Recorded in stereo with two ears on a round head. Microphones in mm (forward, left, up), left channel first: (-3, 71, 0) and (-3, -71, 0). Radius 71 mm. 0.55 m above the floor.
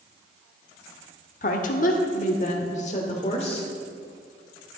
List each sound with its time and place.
1.4 s a woman speaking: 50° left (ahead or behind), 1.0 m; by 3.7 s 40° left (ahead or behind), 1.6 m